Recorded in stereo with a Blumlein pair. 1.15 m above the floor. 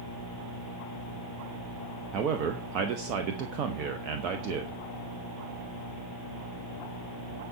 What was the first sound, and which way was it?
A man speaking, 40° right.